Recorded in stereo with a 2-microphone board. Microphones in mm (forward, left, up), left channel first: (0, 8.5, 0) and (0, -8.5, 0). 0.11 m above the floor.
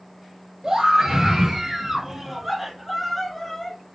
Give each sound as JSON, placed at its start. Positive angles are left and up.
{"t": 0.6, "sound": "a scream", "side_deg": -45, "distance_m": 2.0}